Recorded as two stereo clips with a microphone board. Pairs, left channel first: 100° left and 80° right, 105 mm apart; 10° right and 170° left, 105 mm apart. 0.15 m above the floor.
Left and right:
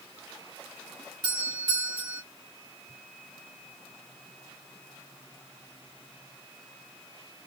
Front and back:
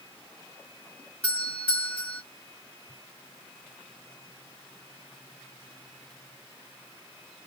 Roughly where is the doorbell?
Right.